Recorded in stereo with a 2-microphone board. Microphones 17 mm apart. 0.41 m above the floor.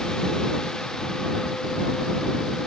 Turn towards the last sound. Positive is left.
No sound to turn to.